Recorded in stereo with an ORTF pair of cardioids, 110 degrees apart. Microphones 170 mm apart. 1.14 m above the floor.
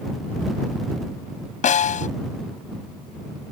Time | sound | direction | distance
1.6 | a snare drum | 50° left | ?